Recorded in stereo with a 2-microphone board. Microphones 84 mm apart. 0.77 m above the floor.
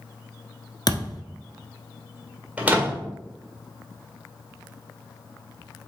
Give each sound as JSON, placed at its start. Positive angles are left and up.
{"t": 0.9, "sound": "a thud", "side_deg": 50, "distance_m": 1.0}
{"t": 2.6, "sound": "a door slam", "side_deg": -15, "distance_m": 1.7}